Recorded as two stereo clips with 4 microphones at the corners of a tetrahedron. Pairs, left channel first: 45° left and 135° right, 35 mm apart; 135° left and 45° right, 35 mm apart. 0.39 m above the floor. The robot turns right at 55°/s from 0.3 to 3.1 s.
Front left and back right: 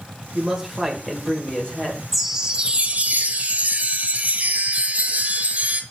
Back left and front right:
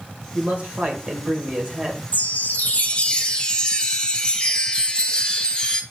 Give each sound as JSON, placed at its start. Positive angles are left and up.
{"t": 0.3, "sound": "a man speaking", "azimuth_deg": -75, "distance_m": 1.9}
{"t": 2.1, "sound": "a chime", "azimuth_deg": 140, "distance_m": 0.7}